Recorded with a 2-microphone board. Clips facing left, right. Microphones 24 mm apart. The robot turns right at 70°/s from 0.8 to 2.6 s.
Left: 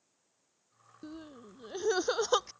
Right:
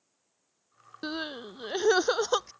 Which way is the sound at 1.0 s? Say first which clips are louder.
Right 12 dB; 95° right.